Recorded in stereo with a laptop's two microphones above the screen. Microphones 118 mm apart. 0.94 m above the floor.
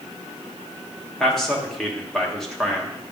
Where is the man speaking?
5° left (ahead or behind), 1.2 m.